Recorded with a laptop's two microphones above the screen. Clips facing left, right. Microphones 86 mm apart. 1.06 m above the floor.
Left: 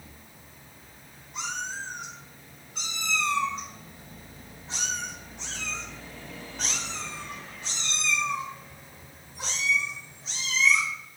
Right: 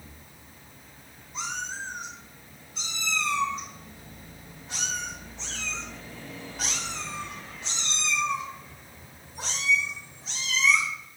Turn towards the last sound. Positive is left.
turn(degrees=-45)  # may be behind; listen again after turning